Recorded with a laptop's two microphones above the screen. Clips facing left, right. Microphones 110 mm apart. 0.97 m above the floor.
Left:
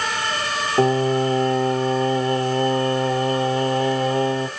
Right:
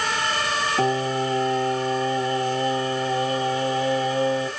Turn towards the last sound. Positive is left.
turn(degrees=70)  # may be behind; listen again after turning